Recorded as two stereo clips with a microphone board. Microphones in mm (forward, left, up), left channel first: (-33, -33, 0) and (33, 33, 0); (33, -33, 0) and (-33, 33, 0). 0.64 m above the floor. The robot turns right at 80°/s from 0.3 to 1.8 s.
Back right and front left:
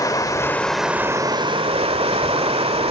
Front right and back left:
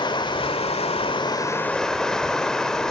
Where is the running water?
80° right, 1.5 m; by 2.9 s 40° left, 1.5 m.